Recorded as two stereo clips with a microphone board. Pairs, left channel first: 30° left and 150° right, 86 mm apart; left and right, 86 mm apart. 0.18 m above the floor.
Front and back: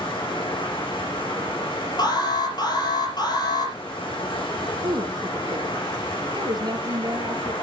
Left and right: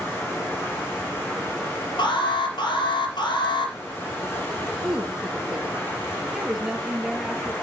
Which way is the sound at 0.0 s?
30° left.